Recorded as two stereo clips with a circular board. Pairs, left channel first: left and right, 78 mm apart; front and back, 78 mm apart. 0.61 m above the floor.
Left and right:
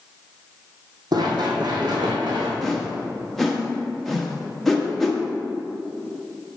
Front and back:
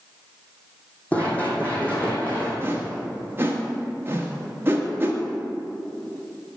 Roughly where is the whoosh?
Behind.